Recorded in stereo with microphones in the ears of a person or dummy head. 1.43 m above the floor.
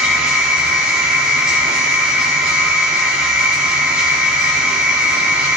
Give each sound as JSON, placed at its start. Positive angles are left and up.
{"t": 0.0, "sound": "a machine running", "side_deg": -5, "distance_m": 2.5}